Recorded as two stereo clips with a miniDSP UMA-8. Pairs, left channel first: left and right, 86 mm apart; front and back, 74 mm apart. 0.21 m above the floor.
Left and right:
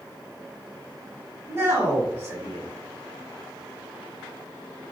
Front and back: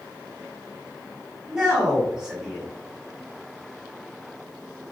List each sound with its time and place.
1.5 s a man speaking: 110° right, 1.2 m